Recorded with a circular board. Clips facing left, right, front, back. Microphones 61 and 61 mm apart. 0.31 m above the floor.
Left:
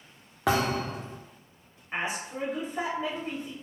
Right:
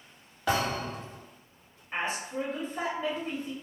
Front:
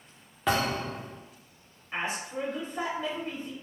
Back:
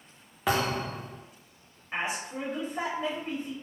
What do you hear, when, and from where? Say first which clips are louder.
0.5 s a thud: left 3 dB, even; 100° left, 1.3 m
1.9 s a woman speaking: even, even; 140° left, 1.2 m